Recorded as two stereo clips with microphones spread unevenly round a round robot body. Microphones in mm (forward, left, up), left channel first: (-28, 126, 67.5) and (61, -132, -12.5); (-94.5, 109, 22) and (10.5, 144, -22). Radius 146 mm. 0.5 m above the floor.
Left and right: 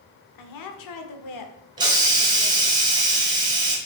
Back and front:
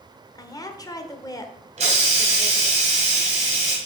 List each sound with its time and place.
0.3 s a woman speaking: 130° left, 1.3 m
1.8 s a hiss: straight ahead, 2 m